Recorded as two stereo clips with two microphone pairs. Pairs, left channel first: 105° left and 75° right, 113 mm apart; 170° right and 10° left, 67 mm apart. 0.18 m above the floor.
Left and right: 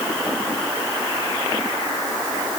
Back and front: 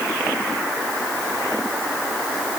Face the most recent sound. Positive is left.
No sound to turn to.